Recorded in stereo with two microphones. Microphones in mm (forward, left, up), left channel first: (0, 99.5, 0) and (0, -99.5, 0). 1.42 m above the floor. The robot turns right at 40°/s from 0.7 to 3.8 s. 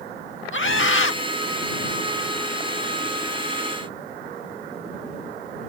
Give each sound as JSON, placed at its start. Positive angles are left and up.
{"t": 0.5, "sound": "a scream", "side_deg": 80}